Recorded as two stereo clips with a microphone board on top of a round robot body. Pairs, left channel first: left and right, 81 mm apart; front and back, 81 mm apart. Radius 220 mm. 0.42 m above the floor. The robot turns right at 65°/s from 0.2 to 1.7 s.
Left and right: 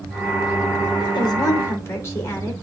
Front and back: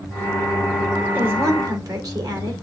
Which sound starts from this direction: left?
A woman speaking, at 1.0 s.